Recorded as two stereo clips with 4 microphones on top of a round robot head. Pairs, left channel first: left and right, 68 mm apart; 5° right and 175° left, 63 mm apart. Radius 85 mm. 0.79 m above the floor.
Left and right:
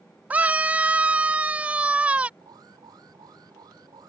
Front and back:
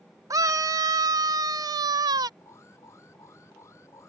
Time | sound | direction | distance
0.3 | a scream | 155° right | ?
2.4 | an alarm | 55° right | ?